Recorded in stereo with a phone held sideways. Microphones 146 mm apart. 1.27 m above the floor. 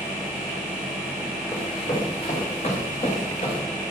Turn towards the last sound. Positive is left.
turn(degrees=60)  # may be behind; listen again after turning